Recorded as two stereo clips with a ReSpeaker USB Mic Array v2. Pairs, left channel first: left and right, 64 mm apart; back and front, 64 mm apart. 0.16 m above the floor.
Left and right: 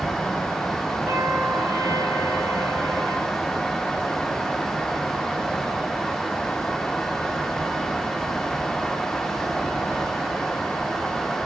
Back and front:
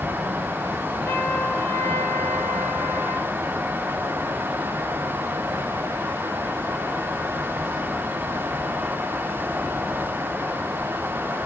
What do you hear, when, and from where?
1.1 s a trumpet: 120° right, 2.5 m